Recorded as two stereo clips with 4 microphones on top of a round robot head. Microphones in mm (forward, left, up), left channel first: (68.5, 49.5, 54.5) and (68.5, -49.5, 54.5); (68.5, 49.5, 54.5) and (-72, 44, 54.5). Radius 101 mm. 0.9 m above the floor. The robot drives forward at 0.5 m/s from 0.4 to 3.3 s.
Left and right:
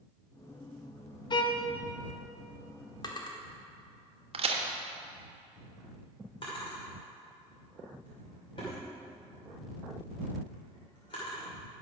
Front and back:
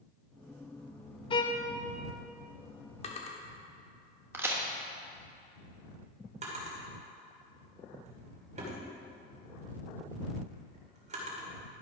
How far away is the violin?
About 1.1 m.